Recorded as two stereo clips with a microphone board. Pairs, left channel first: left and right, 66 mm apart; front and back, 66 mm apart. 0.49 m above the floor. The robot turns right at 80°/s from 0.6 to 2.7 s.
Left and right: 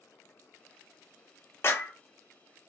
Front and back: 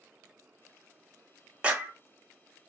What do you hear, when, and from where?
1.6 s a clap: 115° left, 0.6 m; by 1.9 s 140° left, 0.6 m